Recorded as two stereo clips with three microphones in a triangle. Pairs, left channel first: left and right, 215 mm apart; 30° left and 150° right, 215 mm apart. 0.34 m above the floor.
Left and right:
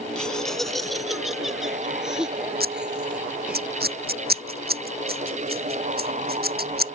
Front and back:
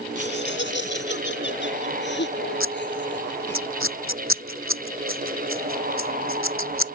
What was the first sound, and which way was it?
Laughter, 5° left.